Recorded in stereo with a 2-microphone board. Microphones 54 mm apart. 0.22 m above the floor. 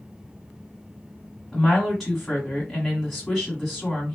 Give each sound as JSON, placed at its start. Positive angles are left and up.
{"t": 1.5, "sound": "a woman speaking", "side_deg": 0, "distance_m": 1.3}